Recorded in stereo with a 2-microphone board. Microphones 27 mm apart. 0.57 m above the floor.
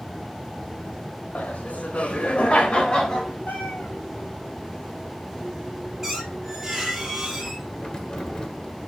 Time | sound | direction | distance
1.4 | laughter | 70° left (ahead or behind) | 3 m
3.5 | a cat meowing | 85° left | 4.5 m
6.0 | a squeak | 5° right (ahead or behind) | 4 m
7.8 | keys jangling | 30° left (ahead or behind) | 1.7 m